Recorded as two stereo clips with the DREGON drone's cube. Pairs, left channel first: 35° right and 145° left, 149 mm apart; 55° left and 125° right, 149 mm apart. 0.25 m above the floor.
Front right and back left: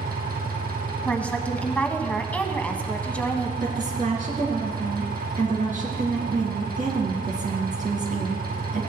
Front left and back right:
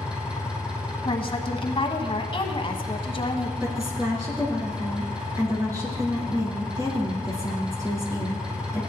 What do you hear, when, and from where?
0.0 s an engine running: 150° left, 2.5 m
1.1 s a woman speaking: 40° left, 1.2 m
3.6 s a woman speaking: 170° left, 3 m